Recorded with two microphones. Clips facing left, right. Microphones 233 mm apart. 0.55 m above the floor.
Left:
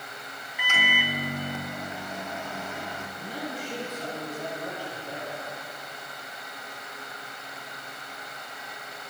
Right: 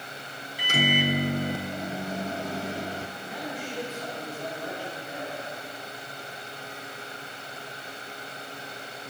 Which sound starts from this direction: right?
A microwave, at 0.6 s.